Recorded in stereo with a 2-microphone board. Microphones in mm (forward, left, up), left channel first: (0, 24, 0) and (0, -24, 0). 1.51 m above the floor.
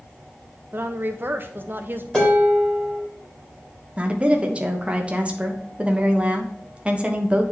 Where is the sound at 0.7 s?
45° right (ahead or behind), 0.7 m.